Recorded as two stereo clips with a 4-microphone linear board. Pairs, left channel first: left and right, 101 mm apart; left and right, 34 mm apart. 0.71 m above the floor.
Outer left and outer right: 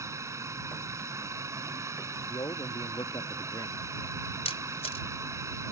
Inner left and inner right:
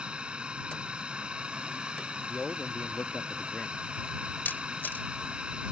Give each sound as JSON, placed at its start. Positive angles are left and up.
{"t": 0.0, "sound": "a drone", "side_deg": -30}
{"t": 2.3, "sound": "a man speaking", "side_deg": 45}
{"t": 4.5, "sound": "a camera shutter", "side_deg": 80}